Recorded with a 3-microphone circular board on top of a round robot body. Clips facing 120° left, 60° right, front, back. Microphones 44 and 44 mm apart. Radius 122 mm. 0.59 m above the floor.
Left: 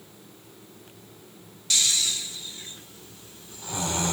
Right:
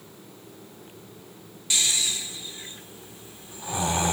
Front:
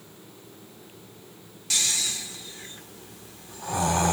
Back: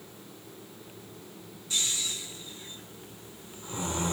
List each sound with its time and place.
1.7 s snoring: 15° left, 3 m